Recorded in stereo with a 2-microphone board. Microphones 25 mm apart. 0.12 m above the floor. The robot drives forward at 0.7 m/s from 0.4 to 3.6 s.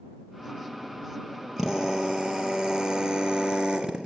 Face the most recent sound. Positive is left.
turn(degrees=-40)  # may be behind; listen again after turning